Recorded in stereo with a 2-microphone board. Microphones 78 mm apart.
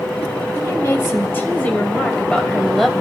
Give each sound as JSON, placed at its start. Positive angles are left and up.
{"t": 0.6, "sound": "a woman speaking", "side_deg": 40, "distance_m": 1.7}